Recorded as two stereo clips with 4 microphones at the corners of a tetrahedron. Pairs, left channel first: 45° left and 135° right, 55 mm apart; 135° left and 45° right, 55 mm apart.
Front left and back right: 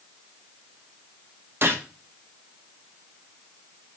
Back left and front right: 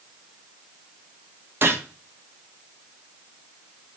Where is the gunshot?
90° right, 0.6 m.